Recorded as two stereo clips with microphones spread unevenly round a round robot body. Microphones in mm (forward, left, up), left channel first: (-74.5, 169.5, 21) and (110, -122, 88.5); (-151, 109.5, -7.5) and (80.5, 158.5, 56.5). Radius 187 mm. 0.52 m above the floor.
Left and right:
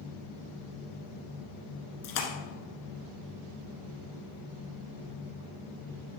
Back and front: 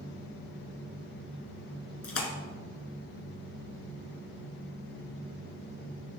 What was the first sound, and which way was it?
A splash, 165° left.